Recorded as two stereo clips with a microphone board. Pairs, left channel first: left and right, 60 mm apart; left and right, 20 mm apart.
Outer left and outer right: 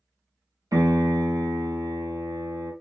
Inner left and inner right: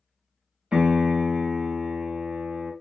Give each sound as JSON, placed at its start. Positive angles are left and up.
{"t": 0.7, "sound": "a piano", "side_deg": -75, "distance_m": 0.8}